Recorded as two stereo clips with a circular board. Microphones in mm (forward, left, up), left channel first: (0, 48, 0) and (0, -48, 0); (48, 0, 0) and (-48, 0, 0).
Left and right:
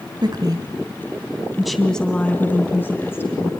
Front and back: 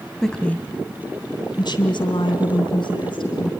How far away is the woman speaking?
About 1.9 m.